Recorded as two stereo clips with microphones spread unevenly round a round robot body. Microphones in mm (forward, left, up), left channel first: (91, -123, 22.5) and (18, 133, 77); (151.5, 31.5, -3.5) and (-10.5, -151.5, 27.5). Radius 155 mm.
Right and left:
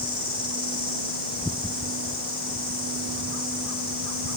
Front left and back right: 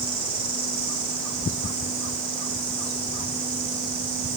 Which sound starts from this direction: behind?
An insect, at 0.0 s.